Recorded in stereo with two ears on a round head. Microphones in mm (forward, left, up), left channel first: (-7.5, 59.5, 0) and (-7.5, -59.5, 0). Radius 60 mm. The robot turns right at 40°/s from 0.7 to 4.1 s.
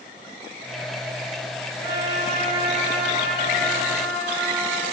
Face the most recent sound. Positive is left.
turn(degrees=15)